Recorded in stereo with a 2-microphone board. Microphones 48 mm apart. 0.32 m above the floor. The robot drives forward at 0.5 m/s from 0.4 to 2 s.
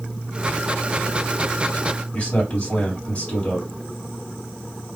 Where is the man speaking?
25° left (ahead or behind), 1.8 m.